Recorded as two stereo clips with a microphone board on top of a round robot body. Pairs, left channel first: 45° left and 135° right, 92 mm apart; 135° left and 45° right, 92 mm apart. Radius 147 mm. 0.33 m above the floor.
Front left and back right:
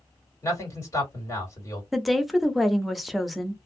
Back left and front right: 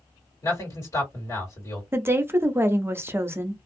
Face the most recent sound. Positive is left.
turn(degrees=-45)